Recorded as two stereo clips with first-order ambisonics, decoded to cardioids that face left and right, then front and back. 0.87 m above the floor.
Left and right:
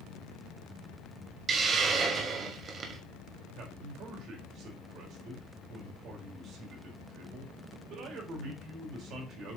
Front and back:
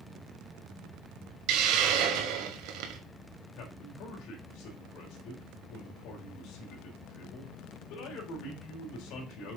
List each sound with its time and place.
1.5 s a hiss: 155° right, 1.9 m
3.5 s a man speaking: 40° right, 4 m